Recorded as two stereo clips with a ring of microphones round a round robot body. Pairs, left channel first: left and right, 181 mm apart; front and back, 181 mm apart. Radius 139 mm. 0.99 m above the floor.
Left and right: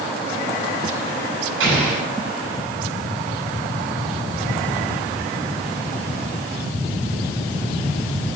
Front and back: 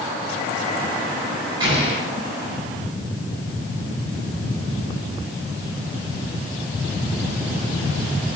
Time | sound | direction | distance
1.6 | an explosion | 105° right | 5.5 m